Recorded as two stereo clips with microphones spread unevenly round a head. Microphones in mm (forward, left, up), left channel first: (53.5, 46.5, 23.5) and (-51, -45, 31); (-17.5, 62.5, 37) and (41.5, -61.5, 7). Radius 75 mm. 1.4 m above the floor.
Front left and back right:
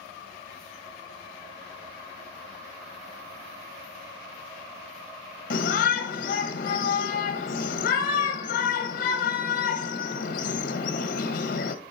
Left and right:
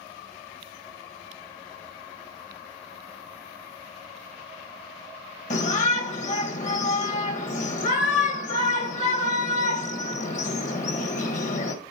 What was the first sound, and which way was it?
A shout, 75° left.